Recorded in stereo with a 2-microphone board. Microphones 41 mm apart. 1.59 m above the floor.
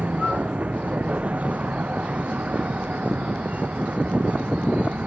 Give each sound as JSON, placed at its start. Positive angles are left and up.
{"t": 0.0, "sound": "a vehicle", "side_deg": -35}